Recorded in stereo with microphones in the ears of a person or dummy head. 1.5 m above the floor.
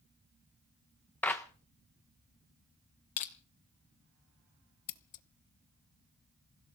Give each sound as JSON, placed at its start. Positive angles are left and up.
{"t": 1.2, "sound": "a clap", "side_deg": 10, "distance_m": 1.0}
{"t": 3.2, "sound": "crushing", "side_deg": 40, "distance_m": 0.9}
{"t": 4.9, "sound": "scissors", "side_deg": 45, "distance_m": 0.8}